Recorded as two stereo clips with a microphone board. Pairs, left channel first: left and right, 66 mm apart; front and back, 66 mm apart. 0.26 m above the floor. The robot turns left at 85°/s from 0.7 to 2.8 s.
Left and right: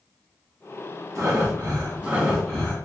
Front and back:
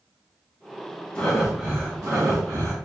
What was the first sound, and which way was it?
Breathing, 70° right.